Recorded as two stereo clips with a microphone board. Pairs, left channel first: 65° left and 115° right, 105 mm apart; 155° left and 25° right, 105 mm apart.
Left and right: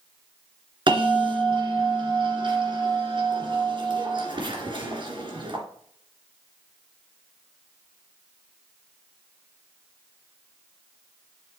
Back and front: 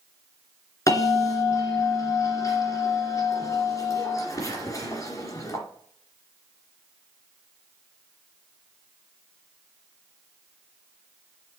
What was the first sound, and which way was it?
A bell, 150° right.